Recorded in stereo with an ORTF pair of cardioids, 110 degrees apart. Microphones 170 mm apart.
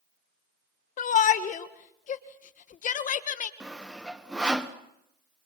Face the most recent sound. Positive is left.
turn(degrees=-5)